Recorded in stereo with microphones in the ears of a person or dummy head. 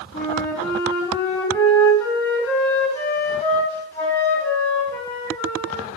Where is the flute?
5° left (ahead or behind), 3 m.